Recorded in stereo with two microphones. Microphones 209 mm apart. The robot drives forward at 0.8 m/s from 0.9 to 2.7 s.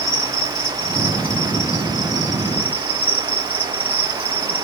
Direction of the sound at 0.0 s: 75° left (ahead or behind).